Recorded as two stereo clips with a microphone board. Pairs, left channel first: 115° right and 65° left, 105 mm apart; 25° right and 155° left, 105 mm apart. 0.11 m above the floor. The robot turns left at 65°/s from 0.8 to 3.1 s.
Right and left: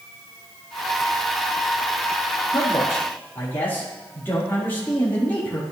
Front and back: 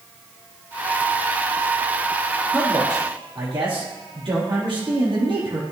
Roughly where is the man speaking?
Behind right.